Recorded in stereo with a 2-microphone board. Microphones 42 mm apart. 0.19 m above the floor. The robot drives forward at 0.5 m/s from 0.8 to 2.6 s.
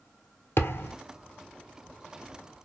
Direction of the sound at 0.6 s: 75° left (ahead or behind).